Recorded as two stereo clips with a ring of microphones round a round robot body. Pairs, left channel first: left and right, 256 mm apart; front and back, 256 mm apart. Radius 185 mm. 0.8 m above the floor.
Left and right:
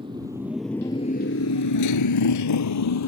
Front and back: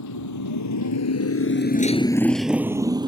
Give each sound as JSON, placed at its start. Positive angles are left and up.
{"t": 0.0, "sound": "a motorcycle", "azimuth_deg": -15}